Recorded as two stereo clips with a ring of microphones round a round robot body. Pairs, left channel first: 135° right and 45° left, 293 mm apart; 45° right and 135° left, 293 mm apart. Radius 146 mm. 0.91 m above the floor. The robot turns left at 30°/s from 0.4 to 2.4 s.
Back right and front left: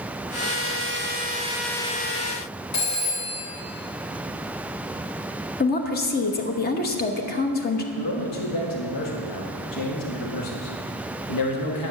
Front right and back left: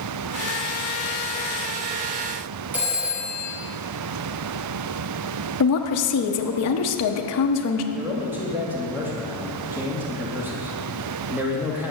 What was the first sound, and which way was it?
A phone ringing, 140° right.